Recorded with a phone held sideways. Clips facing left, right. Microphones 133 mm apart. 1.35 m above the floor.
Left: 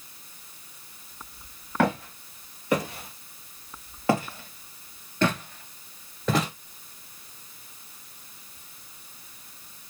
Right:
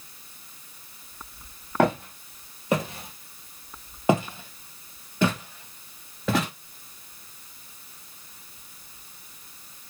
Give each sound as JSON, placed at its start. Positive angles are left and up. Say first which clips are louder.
{"t": 1.8, "sound": "footsteps", "louder": "right 2 dB", "side_deg": -25, "distance_m": 2.5}